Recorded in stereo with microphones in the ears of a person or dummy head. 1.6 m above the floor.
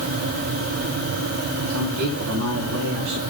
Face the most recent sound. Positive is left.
turn(degrees=-80)